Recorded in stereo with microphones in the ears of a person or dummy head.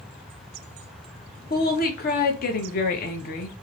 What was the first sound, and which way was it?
A woman speaking, 40° left (ahead or behind).